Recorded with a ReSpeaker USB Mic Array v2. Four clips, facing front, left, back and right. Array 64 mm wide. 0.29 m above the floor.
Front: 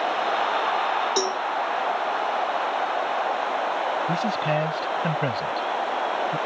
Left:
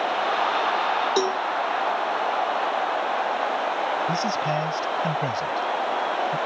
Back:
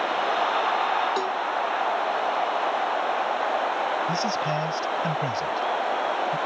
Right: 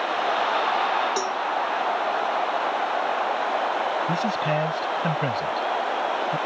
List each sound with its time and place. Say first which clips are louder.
1.2 s a cowbell: left 3 dB, front 1 dB; 70° left
4.1 s a man speaking: even, front 2 dB; 35° right